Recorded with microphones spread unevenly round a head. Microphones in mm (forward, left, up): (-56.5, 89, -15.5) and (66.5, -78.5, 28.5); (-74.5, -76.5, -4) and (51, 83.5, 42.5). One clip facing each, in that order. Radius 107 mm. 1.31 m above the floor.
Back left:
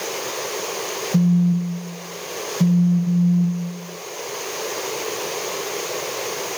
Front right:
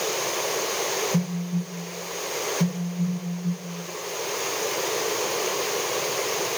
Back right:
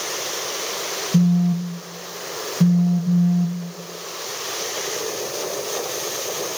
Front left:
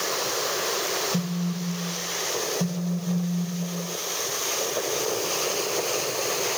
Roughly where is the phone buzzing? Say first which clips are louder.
Back left 9 dB, back right 10 dB; behind.